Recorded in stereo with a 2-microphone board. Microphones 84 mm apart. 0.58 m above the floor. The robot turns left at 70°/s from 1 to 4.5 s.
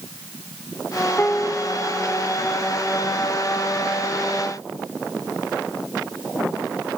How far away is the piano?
About 0.7 m.